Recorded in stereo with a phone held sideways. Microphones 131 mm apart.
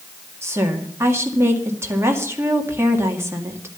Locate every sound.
0.4 s a woman speaking: 20° right (ahead or behind), 2 m